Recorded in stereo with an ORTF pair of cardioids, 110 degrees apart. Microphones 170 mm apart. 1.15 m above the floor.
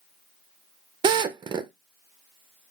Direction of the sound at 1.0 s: 25° right.